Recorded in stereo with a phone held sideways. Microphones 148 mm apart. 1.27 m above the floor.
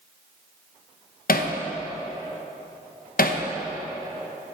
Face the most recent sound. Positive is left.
turn(degrees=75)  # may be behind; listen again after turning